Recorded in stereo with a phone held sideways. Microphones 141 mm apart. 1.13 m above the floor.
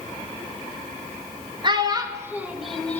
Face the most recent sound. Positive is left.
turn(degrees=10)  # may be behind; listen again after turning